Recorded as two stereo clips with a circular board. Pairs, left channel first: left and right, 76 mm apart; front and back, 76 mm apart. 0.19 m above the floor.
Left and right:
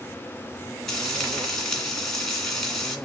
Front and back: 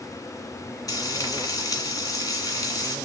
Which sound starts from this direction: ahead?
Frying, at 0.9 s.